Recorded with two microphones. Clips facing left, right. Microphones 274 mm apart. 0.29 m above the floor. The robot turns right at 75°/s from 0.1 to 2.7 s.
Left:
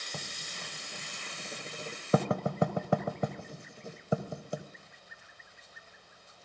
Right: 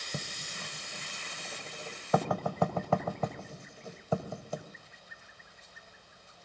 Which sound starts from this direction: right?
Writing, at 0.1 s.